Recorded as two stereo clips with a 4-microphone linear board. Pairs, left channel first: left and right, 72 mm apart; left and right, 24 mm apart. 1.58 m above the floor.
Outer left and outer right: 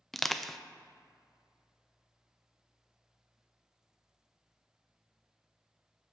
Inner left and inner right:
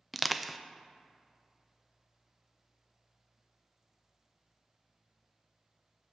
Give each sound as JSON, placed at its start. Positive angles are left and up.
{"t": 0.1, "sound": "crushing", "side_deg": 0, "distance_m": 0.5}